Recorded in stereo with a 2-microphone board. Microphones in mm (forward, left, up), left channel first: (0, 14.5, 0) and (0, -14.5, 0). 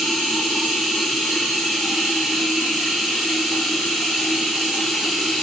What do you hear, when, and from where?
0.0 s running water: centre (ahead or behind), 1.2 m